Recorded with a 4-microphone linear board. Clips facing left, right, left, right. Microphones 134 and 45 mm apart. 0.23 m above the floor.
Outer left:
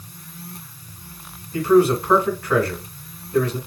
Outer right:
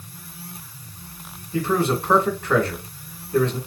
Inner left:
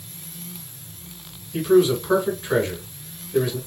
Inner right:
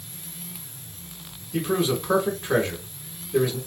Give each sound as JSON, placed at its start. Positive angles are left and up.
{"t": 1.5, "sound": "a man speaking", "side_deg": -20, "distance_m": 2.5}